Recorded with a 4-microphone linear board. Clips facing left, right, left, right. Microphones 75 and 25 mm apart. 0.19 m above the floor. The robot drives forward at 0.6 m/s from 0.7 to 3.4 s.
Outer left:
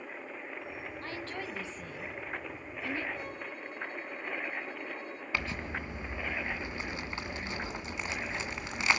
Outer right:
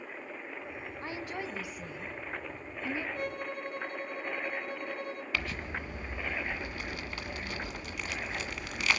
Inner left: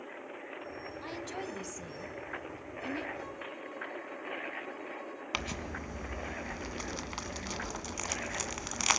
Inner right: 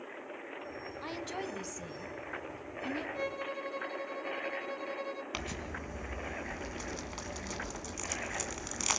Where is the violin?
70° right (ahead or behind), 1.5 m; by 5.2 s 65° right (ahead or behind), 1.5 m.